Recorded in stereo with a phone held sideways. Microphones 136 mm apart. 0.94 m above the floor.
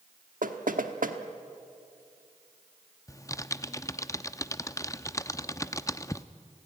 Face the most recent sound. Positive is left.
turn(degrees=25)  # may be behind; listen again after turning